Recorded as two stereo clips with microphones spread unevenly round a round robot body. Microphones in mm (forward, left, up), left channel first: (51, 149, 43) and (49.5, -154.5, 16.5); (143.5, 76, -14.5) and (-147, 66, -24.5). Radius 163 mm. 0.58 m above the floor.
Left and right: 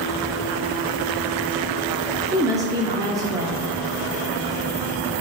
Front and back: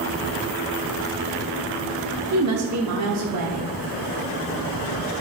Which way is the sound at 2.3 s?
165° right.